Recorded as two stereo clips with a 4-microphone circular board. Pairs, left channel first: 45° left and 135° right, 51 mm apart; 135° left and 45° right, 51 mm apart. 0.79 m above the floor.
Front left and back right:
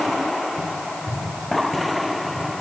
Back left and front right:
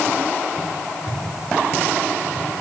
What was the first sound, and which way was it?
Only background noise.